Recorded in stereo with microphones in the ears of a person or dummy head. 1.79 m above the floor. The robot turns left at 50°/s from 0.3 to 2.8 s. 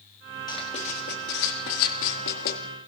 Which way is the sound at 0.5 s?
20° left (ahead or behind).